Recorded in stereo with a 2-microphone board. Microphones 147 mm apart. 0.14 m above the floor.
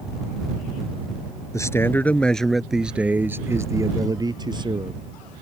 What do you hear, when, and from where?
1.5 s a man speaking: 20° left (ahead or behind); by 5.0 s 35° right (ahead or behind)